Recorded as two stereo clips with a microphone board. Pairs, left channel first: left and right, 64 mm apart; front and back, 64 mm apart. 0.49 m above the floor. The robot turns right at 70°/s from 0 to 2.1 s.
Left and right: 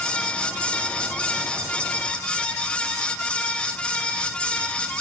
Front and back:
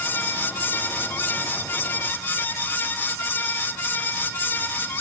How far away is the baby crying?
I don't hear a baby crying.